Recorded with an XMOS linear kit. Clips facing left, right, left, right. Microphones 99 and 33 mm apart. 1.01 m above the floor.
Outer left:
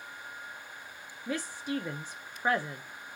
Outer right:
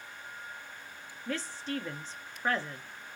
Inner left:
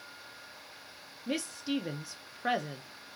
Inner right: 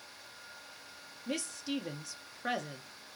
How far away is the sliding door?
I don't hear a sliding door.